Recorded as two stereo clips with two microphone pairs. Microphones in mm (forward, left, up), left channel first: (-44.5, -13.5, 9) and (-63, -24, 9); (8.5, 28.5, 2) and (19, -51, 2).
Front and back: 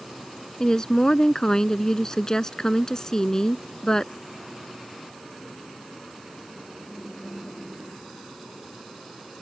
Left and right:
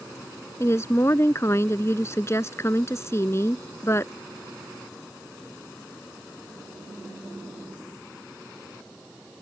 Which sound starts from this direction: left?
A woman speaking, at 0.6 s.